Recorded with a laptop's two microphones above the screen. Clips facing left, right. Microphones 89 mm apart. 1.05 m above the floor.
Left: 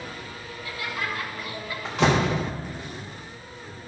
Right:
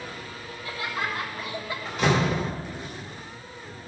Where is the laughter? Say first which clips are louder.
Right 1 dB; 30° right (ahead or behind), 1.8 m; by 1.8 s 25° right (ahead or behind), 1.2 m.